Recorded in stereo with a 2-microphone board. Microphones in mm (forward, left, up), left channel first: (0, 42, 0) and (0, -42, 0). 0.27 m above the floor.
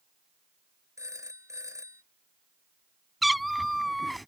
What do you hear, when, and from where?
1.0 s a phone ringing: 40° right (ahead or behind)
3.2 s a cat meowing: centre (ahead or behind)